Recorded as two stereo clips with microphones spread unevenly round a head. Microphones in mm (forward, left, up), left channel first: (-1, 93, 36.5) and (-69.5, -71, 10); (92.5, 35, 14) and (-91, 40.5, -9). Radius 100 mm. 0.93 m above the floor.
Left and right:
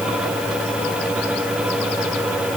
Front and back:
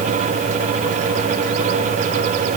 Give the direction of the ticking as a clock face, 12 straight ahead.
I don't hear ticking.